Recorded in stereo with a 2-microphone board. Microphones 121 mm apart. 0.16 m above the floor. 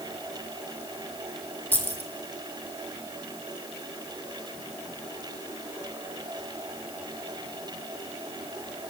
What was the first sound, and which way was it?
Keys jangling, 15° left (ahead or behind).